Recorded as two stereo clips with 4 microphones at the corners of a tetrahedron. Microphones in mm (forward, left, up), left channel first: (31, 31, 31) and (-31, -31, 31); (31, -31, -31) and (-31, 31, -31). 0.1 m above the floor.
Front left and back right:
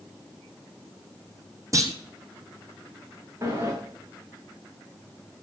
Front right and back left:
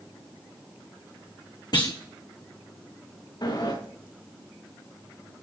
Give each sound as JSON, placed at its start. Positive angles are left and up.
{"t": 1.7, "sound": "a clunk", "azimuth_deg": -80, "distance_m": 2.0}
{"t": 3.4, "sound": "a sliding door", "azimuth_deg": -80, "distance_m": 6.5}